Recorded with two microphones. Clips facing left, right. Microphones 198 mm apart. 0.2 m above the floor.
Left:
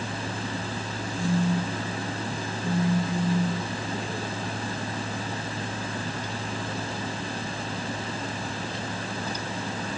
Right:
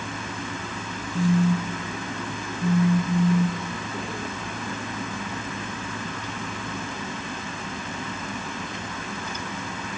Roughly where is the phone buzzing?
Right.